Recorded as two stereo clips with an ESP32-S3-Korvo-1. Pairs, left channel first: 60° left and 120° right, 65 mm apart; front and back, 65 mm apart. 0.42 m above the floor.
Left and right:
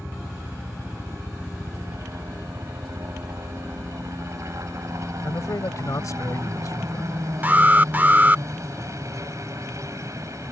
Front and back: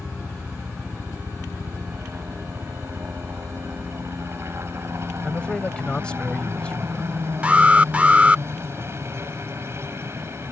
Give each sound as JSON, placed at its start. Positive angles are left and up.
{"t": 0.0, "sound": "a helicopter", "azimuth_deg": -140}
{"t": 5.2, "sound": "a man speaking", "azimuth_deg": 70}
{"t": 7.4, "sound": "an alarm", "azimuth_deg": -135}